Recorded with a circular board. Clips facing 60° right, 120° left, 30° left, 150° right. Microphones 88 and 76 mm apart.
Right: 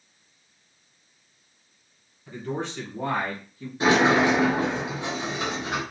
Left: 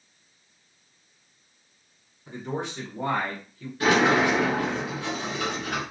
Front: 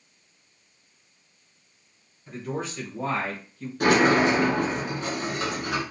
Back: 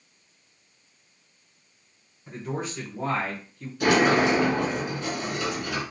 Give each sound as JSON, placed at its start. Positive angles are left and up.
{"t": 2.3, "sound": "a man speaking", "azimuth_deg": 155, "distance_m": 1.3}
{"t": 3.8, "sound": "a sliding door", "azimuth_deg": 5, "distance_m": 1.0}